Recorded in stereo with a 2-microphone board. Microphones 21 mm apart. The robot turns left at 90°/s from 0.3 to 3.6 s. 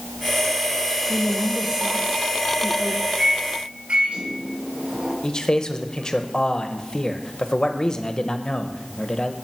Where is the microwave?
40° right (ahead or behind), 4 m; by 5.1 s 80° right, 4 m.